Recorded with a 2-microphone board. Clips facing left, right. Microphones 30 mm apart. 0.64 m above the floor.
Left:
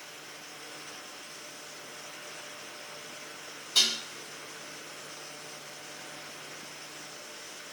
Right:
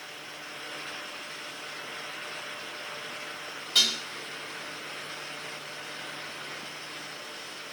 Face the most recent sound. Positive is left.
turn(degrees=-80)